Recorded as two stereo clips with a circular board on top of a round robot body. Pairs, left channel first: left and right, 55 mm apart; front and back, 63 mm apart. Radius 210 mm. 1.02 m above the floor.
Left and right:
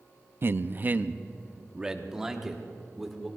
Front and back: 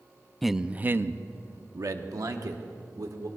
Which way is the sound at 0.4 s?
90° right.